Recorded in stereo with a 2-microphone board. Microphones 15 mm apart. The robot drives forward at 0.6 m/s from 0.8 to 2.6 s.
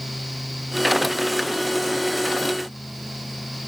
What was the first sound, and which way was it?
Only background noise.